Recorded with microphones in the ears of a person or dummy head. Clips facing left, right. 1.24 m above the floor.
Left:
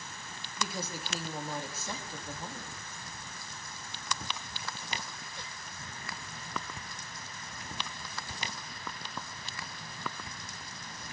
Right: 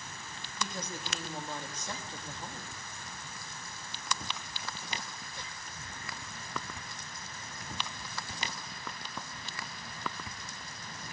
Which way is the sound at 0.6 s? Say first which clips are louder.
Left 2 dB; 10° left (ahead or behind).